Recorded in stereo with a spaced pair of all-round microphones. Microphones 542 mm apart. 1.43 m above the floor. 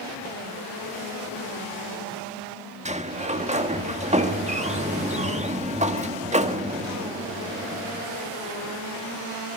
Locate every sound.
2.9 s a sliding door: 10° right (ahead or behind), 1.5 m